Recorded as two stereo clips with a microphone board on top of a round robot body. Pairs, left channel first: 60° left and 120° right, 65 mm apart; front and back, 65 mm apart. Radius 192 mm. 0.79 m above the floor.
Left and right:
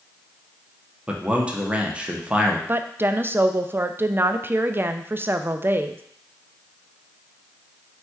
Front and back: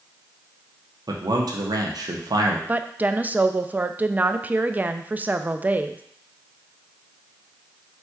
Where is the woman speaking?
135° right, 0.5 m.